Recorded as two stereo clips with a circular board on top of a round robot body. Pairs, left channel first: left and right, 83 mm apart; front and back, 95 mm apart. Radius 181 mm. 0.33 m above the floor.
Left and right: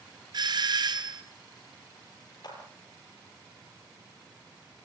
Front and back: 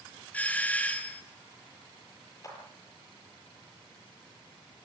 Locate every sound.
0.3 s a doorbell: 75° right, 2.5 m
2.4 s a clap: 55° left, 9 m